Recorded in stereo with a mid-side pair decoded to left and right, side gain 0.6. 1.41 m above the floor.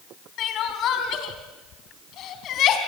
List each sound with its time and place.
0.4 s crying: 55° left, 3.5 m